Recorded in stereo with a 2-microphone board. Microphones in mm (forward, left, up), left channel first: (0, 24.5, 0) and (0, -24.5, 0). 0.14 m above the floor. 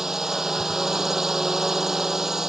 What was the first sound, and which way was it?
A drone, 10° right (ahead or behind).